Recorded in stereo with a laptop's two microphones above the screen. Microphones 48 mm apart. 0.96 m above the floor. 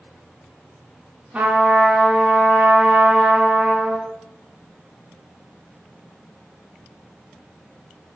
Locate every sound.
1.3 s a trumpet: 30° right (ahead or behind), 1.1 m